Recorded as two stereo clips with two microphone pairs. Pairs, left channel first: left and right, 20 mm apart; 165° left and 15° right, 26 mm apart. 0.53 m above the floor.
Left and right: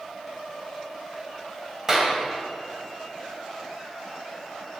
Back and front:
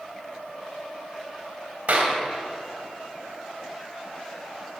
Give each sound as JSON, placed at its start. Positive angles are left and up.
{"t": 1.9, "sound": "a clap", "azimuth_deg": -20, "distance_m": 2.5}